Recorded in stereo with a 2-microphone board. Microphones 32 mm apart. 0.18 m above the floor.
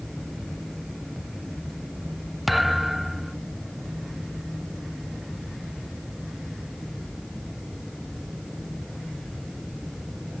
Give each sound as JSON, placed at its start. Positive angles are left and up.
{"t": 2.5, "sound": "a thud", "side_deg": -5}